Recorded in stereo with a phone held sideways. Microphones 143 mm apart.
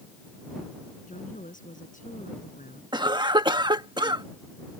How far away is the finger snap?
No finger snap in this recording.